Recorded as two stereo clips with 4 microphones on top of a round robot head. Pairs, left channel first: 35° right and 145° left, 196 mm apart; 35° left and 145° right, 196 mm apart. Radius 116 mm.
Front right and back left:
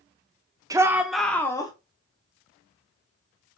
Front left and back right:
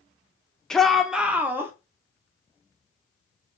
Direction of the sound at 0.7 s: 115° left.